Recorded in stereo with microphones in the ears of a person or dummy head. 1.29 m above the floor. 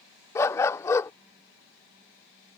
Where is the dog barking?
15° left (ahead or behind).